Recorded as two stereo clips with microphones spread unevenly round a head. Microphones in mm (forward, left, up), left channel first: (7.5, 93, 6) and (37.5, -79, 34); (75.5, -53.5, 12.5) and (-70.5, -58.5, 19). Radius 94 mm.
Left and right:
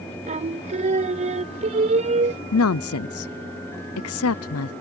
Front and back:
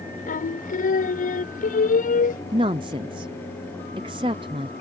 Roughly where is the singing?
Ahead right.